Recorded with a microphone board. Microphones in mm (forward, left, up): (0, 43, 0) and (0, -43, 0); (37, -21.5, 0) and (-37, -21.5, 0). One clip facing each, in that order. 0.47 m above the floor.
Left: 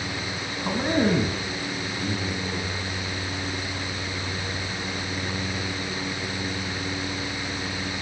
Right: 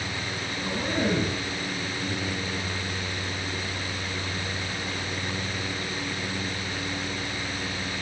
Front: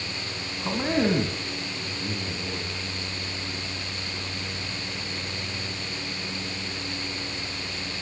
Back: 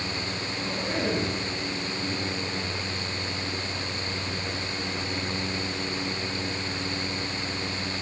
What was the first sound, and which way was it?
A man speaking, 45° left.